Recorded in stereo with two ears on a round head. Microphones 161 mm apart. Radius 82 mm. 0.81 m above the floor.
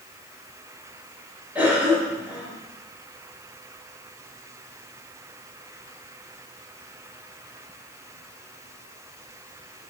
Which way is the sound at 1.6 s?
10° right (ahead or behind).